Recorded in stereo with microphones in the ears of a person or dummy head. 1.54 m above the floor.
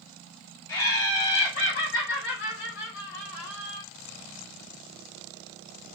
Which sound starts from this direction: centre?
Laughter, at 0.7 s.